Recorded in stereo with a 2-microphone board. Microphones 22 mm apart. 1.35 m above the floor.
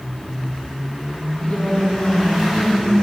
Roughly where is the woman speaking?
Left.